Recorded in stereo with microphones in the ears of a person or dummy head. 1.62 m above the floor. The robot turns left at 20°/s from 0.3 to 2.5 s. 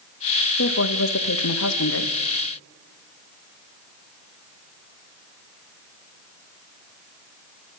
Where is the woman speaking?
120° left, 0.9 m; by 2.1 s 90° left, 0.9 m.